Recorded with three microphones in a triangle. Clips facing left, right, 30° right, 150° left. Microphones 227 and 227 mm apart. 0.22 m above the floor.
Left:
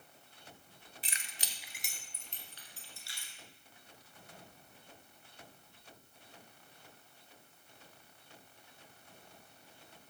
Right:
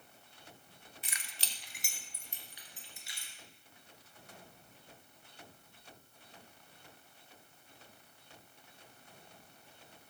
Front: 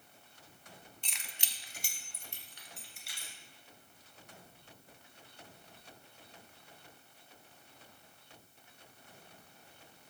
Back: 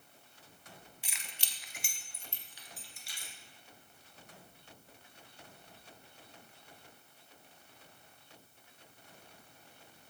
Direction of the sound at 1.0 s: 80° left.